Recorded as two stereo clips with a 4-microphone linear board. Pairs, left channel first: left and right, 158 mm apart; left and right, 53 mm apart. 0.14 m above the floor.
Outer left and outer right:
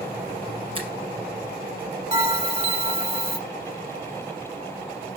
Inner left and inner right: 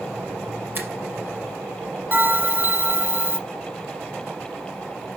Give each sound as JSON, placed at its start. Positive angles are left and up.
{"t": 0.8, "sound": "a finger snap", "side_deg": -35, "distance_m": 2.5}
{"t": 2.1, "sound": "a bell", "side_deg": -40, "distance_m": 0.9}